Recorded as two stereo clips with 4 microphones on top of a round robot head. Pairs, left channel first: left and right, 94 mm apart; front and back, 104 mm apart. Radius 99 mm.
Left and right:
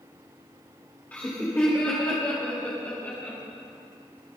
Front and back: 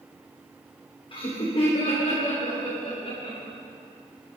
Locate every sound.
1.1 s laughter: 20° left, 2 m; by 3.4 s 25° left, 5.5 m